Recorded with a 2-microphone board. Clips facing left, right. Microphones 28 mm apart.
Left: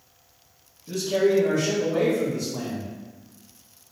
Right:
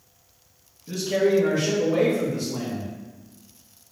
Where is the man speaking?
15° right (ahead or behind), 1.5 m; by 2.9 s 55° right (ahead or behind), 1.3 m.